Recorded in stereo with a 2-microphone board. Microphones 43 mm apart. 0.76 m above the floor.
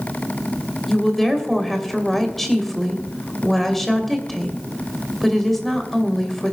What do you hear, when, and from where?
0.9 s a woman speaking: 5° left (ahead or behind), 2.5 m